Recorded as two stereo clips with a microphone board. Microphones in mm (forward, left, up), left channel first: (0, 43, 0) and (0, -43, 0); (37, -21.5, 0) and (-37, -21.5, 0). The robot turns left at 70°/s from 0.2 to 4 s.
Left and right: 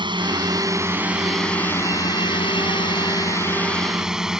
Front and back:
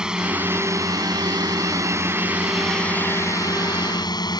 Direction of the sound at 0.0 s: 100° right.